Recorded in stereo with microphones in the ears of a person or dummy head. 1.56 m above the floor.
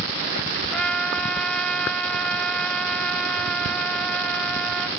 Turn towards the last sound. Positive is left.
turn(degrees=5)  # may be behind; listen again after turning